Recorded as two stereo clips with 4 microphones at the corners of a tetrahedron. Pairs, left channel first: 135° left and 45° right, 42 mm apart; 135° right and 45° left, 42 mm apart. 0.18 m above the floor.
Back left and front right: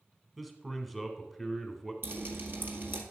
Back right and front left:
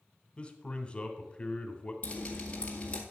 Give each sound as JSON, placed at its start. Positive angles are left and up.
{"t": 0.4, "sound": "a man speaking", "azimuth_deg": -135, "distance_m": 1.2}
{"t": 2.0, "sound": "dripping", "azimuth_deg": -70, "distance_m": 1.9}